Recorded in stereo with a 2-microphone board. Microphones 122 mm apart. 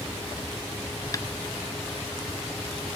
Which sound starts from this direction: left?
Tapping, at 1.1 s.